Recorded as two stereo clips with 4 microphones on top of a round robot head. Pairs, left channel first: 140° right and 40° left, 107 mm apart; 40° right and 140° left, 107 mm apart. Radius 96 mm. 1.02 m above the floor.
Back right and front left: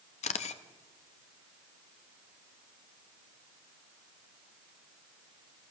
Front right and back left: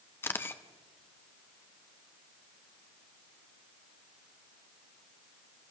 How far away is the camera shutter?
About 0.7 m.